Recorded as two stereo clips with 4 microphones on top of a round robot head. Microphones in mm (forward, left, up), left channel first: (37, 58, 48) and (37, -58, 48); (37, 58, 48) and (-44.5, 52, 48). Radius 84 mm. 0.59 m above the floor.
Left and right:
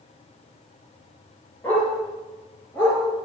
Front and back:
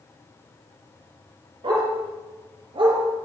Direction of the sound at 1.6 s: 165° left.